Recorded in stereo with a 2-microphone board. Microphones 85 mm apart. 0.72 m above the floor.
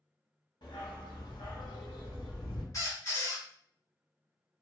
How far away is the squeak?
About 1.1 m.